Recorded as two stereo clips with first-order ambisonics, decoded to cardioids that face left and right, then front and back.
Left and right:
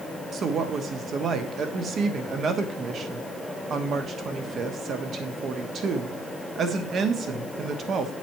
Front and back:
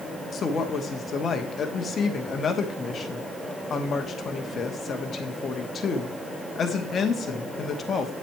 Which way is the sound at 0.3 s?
50° right.